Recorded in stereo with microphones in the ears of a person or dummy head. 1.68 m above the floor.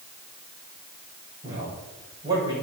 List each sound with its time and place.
1.4 s a man speaking: 15° right (ahead or behind), 6.5 m